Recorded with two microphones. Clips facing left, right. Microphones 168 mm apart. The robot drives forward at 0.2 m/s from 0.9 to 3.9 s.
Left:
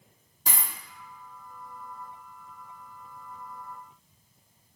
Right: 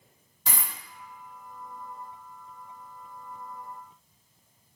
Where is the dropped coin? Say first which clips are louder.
Even; 40° left (ahead or behind), 1.4 m.